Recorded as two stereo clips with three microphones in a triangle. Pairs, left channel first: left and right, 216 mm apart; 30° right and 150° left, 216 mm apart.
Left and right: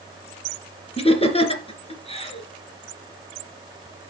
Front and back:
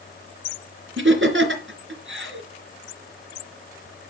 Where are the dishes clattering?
I don't hear dishes clattering.